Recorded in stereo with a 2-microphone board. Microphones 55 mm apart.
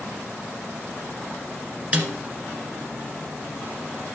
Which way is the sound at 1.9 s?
25° right (ahead or behind).